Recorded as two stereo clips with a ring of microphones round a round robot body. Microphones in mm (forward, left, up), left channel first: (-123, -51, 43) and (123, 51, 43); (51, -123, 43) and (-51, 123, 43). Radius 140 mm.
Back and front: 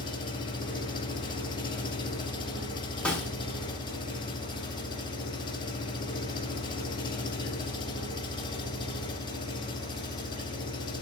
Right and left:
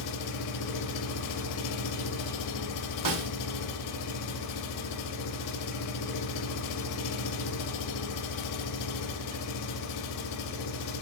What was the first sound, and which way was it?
An engine running, 85° right.